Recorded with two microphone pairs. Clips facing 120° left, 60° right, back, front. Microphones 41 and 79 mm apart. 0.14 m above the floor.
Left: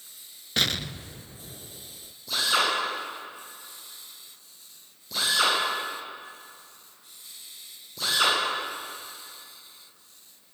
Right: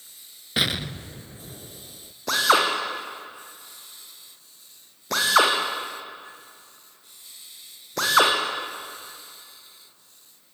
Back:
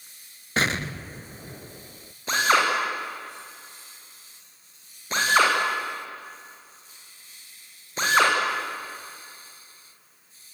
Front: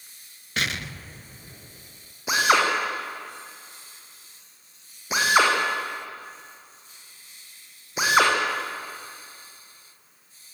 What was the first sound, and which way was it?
An explosion, 135° right.